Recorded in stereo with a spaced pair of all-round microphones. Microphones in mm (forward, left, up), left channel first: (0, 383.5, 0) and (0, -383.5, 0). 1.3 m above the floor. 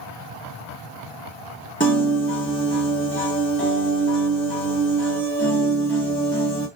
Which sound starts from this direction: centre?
A piano, at 1.8 s.